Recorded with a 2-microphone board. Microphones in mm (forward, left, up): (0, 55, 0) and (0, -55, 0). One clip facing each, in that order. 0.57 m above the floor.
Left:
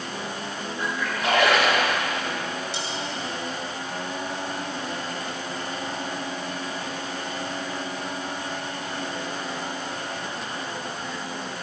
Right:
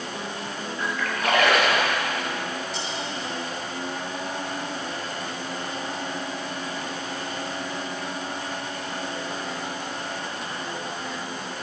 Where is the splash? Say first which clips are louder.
Even; 25° left (ahead or behind), 4.5 m.